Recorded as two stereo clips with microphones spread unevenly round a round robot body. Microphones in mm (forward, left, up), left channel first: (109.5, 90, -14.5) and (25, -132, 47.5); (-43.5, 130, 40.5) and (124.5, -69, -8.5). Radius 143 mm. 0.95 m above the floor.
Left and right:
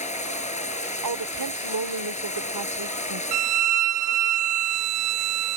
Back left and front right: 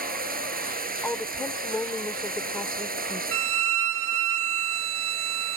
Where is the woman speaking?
145° right.